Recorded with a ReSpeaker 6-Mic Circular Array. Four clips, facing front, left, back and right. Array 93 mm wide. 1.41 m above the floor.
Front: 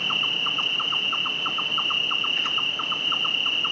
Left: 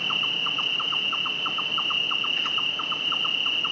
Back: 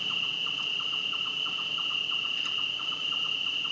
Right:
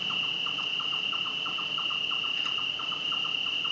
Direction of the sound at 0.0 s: 30° left.